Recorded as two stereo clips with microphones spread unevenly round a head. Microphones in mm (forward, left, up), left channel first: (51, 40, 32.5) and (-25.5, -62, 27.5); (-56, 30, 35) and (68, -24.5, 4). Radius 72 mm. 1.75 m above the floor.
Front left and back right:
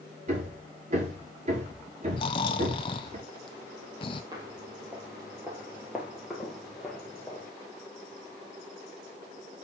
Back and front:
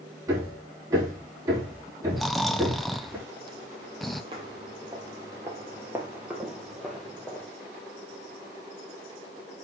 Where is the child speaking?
No child speaking in this recording.